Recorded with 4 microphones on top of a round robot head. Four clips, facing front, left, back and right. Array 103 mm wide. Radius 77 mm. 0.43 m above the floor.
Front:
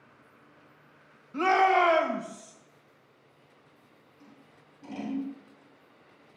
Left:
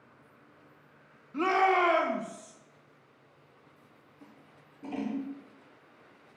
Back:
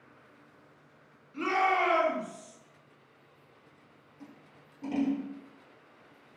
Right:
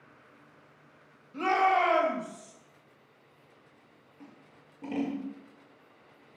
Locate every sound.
1.3 s a shout: 5° right, 2.5 m; by 2.5 s 20° right, 3 m
4.2 s scissors: 115° right, 4.5 m